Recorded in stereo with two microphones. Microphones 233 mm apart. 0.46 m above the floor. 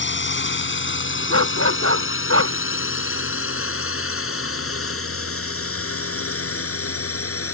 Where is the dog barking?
75° right (ahead or behind).